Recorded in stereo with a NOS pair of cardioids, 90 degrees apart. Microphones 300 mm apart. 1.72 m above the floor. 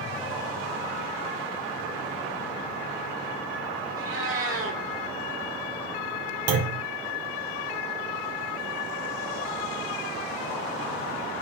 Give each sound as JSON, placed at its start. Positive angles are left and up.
{"t": 4.0, "sound": "a cat meowing", "azimuth_deg": -50, "distance_m": 3.5}
{"t": 6.5, "sound": "a clunk", "azimuth_deg": -60, "distance_m": 1.6}